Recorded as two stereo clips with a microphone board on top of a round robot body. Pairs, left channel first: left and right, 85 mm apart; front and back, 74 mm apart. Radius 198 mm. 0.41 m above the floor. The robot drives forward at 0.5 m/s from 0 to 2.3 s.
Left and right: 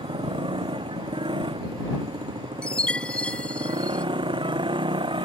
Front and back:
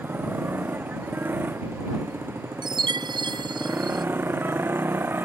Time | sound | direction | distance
0.0 | a motorcycle | 115° right | ?
2.6 | a chime | 165° left | ?